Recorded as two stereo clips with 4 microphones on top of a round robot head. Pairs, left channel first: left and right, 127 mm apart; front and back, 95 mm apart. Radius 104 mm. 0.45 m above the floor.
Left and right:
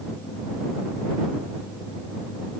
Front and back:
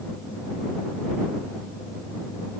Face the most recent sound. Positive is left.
No sound to turn to.